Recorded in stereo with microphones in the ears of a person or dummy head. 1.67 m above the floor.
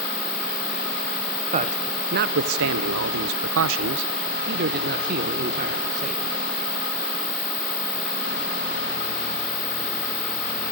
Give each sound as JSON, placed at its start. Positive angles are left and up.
{"t": 1.5, "sound": "a man speaking", "side_deg": -30, "distance_m": 1.1}